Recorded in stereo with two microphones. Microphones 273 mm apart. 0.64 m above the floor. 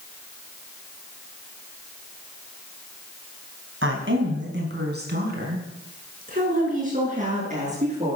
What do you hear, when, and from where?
3.8 s a woman speaking: 50° right (ahead or behind), 4 m; by 8.2 s 25° right (ahead or behind), 8.5 m